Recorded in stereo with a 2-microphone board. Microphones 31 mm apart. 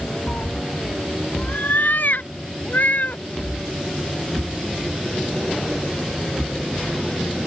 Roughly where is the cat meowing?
Left.